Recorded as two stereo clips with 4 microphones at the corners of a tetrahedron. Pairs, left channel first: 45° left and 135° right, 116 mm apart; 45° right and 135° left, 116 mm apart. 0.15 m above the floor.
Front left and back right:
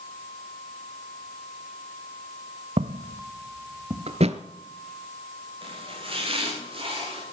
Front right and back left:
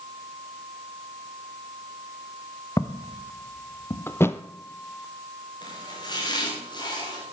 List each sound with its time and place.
2.8 s footsteps: 110° right, 0.5 m; by 4.0 s 95° right, 2.0 m
4.1 s a thud: 115° right, 0.7 m
5.6 s chopping: 95° right, 5 m